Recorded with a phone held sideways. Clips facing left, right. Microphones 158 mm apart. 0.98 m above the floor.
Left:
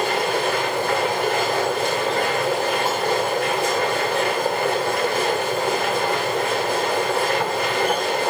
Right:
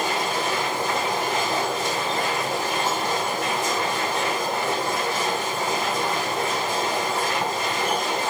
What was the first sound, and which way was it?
A machine running, 55° left (ahead or behind).